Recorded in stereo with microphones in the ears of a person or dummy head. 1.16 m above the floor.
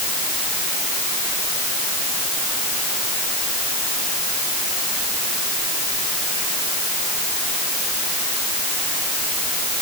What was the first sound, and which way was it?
Only background noise.